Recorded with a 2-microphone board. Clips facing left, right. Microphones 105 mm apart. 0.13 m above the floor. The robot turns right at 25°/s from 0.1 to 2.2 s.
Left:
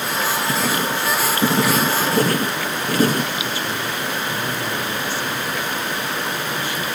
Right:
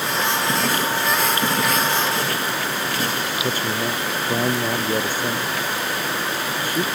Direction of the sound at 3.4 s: 45° right (ahead or behind).